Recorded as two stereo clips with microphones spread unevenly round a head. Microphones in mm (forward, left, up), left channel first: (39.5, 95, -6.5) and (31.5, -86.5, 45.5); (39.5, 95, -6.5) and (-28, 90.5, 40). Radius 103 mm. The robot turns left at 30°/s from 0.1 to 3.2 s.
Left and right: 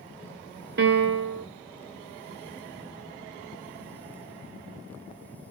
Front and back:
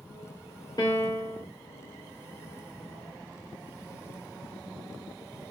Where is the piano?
65° right, 0.8 m; by 1.4 s 85° right, 0.8 m.